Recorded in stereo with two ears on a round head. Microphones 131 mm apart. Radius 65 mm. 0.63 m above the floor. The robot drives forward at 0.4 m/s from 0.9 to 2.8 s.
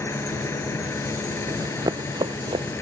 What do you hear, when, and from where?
0.0 s an engine running: 20° left (ahead or behind); by 2.8 s 15° left (ahead or behind)
1.5 s running footsteps: 25° right (ahead or behind); by 2.8 s 35° right (ahead or behind)